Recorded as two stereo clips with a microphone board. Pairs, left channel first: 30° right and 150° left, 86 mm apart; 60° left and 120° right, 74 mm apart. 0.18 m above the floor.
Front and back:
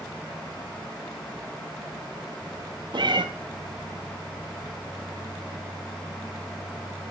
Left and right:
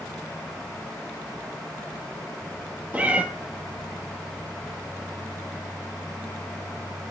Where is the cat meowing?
170° left, 0.8 m.